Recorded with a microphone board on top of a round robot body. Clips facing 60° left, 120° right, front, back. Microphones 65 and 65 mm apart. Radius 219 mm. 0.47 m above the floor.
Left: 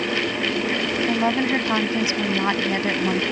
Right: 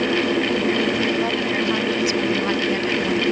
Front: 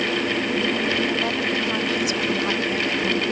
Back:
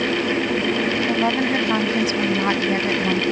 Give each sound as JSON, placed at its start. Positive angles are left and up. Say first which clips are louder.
{"t": 1.1, "sound": "a woman speaking", "louder": "left 1 dB, back 4 dB", "azimuth_deg": 125}